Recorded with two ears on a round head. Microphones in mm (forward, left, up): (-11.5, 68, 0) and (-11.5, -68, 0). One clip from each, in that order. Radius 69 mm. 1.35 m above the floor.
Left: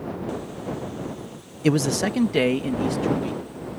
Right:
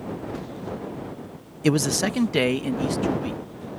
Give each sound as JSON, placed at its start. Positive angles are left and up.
{"t": 1.6, "sound": "a man speaking", "side_deg": -10}